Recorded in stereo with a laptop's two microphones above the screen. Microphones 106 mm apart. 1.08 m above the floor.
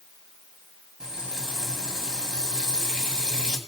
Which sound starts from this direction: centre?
Frying, at 1.0 s.